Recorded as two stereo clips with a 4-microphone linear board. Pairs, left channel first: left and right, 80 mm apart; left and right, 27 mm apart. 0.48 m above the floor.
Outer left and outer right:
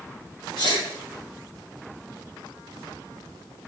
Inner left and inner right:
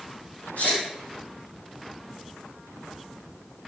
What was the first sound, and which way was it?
A sneeze, 75° left (ahead or behind).